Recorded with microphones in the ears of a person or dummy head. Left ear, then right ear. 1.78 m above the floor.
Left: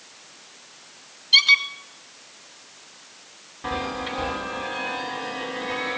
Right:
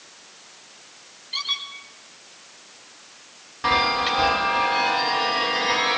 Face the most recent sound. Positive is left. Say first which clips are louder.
# right 9 dB
turn(degrees=-55)  # may be behind; listen again after turning